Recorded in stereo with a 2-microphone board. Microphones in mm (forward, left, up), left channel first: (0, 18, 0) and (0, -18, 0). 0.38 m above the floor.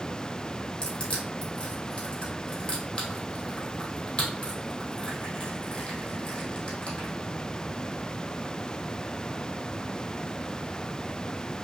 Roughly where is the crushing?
Left.